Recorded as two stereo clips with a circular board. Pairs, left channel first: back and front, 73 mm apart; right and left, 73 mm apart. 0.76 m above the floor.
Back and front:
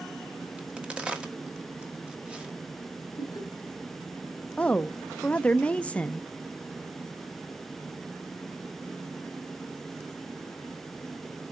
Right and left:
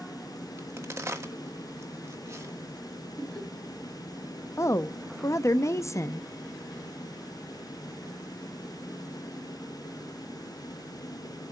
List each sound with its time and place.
0.6 s a crack: 70° left, 1.2 m
3.2 s laughter: 160° right, 2.5 m
4.6 s a woman speaking: 115° right, 0.5 m